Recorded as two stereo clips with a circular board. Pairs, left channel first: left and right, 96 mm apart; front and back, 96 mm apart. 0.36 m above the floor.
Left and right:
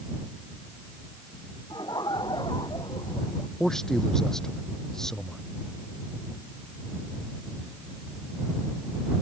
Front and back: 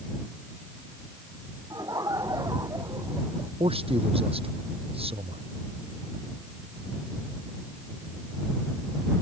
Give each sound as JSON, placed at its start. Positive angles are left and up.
{"t": 1.7, "sound": "laughter", "azimuth_deg": 130}
{"t": 3.6, "sound": "a man speaking", "azimuth_deg": 175}